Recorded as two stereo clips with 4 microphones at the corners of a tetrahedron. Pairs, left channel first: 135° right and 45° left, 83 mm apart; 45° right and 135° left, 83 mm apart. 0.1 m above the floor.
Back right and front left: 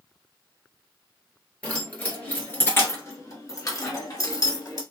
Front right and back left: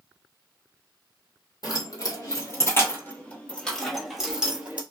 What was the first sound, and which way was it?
Keys jangling, 65° right.